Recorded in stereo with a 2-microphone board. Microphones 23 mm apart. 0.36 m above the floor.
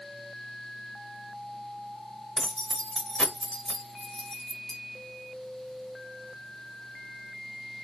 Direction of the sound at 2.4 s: 30° left (ahead or behind).